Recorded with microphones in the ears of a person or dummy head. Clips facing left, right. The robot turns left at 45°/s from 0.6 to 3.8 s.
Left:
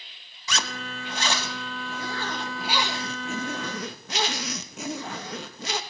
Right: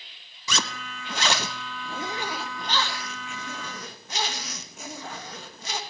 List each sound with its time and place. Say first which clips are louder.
0.5 s a zipper: even; 95° right, 1.0 m; by 5.8 s 120° left, 1.0 m